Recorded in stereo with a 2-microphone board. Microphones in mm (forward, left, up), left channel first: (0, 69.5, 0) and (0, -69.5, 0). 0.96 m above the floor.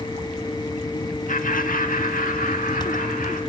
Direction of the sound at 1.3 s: 65° left (ahead or behind).